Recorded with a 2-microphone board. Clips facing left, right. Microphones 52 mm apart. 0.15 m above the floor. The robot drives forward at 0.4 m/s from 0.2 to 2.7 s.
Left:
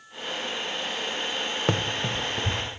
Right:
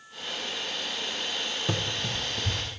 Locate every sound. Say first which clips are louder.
1.7 s running footsteps: left 5 dB; 50° left (ahead or behind), 0.8 m; by 2.6 s 35° left (ahead or behind), 1.1 m